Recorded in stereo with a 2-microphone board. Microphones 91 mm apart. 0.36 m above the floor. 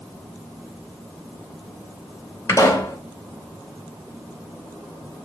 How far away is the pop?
About 0.7 m.